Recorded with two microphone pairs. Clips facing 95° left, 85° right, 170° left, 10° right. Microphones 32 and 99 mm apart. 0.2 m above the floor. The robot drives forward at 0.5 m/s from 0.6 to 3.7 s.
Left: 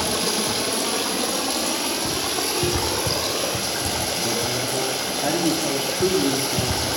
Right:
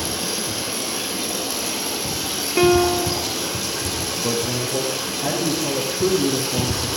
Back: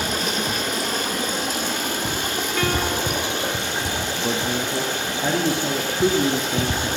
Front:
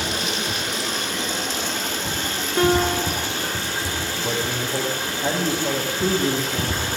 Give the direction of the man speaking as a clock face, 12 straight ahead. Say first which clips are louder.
Right 1 dB, back 2 dB; 6 o'clock.